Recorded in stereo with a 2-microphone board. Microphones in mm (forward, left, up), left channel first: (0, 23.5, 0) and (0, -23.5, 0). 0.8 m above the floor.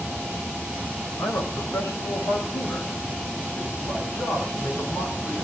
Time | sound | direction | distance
1.2 | a man speaking | 80° left | 4.5 m